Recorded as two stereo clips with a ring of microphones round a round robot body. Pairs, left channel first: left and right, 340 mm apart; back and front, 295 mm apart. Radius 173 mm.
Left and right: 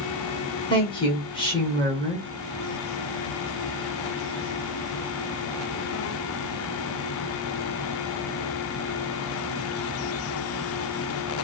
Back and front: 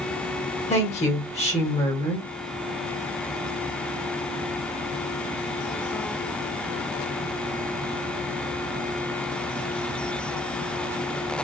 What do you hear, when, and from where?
0.7 s a woman speaking: 150° left, 1.5 m